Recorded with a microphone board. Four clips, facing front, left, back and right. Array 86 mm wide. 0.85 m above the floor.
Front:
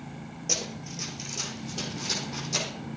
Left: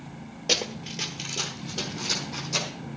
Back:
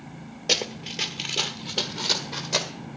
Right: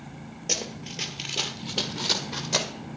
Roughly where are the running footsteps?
Behind left.